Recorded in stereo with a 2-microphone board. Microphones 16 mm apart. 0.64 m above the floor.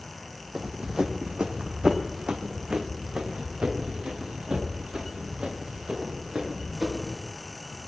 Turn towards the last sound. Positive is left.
turn(degrees=-70)  # may be behind; listen again after turning